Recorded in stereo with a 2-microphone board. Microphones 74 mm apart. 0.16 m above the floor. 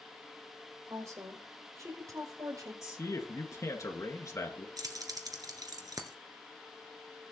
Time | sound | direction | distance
0.9 | a woman speaking | 40° right (ahead or behind) | 5.5 m
2.8 | a man speaking | 45° left (ahead or behind) | 2.5 m
4.8 | keys jangling | 55° right (ahead or behind) | 1.6 m